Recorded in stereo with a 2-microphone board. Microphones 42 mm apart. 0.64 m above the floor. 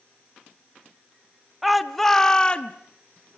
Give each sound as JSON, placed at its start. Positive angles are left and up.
{"t": 1.6, "sound": "a shout", "side_deg": 0, "distance_m": 1.2}